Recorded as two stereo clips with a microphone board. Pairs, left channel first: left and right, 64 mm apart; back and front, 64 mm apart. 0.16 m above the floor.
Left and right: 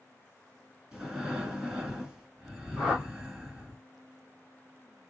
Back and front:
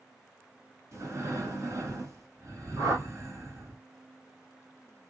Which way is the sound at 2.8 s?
15° right.